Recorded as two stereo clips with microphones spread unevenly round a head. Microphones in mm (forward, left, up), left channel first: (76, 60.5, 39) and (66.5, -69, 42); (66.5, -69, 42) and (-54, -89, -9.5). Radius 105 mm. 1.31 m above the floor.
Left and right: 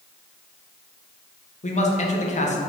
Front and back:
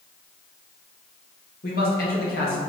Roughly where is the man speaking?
Ahead left.